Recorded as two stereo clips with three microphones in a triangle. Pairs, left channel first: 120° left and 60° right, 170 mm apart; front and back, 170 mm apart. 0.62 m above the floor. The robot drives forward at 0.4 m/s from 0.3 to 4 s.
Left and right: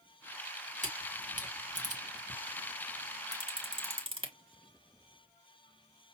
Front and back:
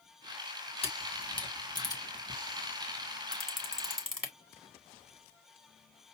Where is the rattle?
I don't hear a rattle.